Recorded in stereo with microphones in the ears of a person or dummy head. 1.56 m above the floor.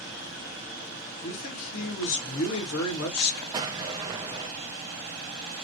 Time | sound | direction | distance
1.2 | a man speaking | 80° left | 2 m
3.5 | an explosion | 25° right (ahead or behind) | 0.8 m